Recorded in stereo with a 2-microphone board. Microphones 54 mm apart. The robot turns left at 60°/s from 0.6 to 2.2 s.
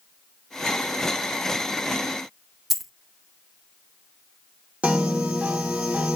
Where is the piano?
25° right (ahead or behind), 0.8 m.